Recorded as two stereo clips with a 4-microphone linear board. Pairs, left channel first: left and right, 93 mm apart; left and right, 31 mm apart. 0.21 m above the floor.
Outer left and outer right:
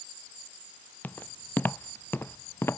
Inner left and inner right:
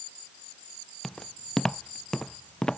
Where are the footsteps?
20° left (ahead or behind); by 2.8 s 25° left (ahead or behind).